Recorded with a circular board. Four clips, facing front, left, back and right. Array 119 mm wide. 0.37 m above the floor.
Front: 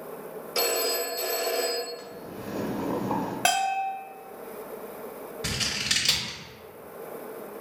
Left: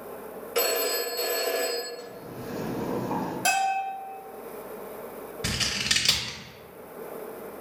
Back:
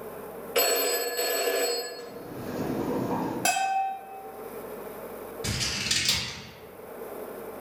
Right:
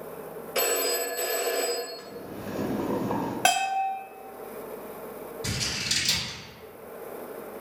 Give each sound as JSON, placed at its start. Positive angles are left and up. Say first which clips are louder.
{"t": 0.6, "sound": "a phone ringing", "louder": "left 1 dB, back 2 dB", "azimuth_deg": 180, "distance_m": 0.6}
{"t": 2.0, "sound": "boiling", "louder": "even, back 1 dB", "azimuth_deg": -60, "distance_m": 1.2}
{"t": 3.5, "sound": "a bell", "louder": "right 1 dB, front 1 dB", "azimuth_deg": -55, "distance_m": 0.8}
{"t": 5.4, "sound": "scissors", "louder": "left 2 dB, front 1 dB", "azimuth_deg": 70, "distance_m": 0.6}